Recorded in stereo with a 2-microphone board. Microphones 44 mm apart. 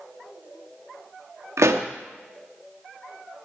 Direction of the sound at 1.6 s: 85° right.